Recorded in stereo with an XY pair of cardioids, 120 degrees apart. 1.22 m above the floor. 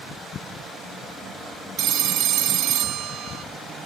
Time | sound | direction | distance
1.8 | a phone ringing | 65° right | ?